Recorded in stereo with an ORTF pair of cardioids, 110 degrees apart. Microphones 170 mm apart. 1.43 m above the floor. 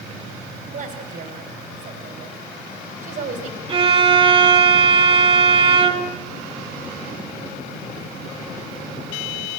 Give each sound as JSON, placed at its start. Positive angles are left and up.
{"t": 0.7, "sound": "a woman speaking", "azimuth_deg": -45, "distance_m": 4.5}
{"t": 3.7, "sound": "a violin", "azimuth_deg": -30, "distance_m": 2.0}